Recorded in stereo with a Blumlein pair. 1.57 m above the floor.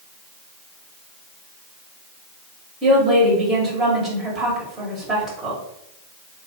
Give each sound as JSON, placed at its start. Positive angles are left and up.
{"t": 2.8, "sound": "a woman speaking", "azimuth_deg": -20, "distance_m": 1.6}